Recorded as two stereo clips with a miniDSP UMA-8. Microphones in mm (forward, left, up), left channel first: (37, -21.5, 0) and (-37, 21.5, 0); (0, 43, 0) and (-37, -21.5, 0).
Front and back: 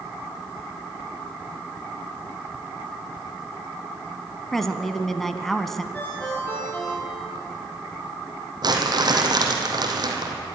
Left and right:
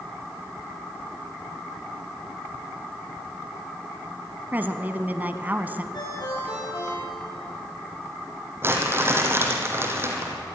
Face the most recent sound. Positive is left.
turn(degrees=-175)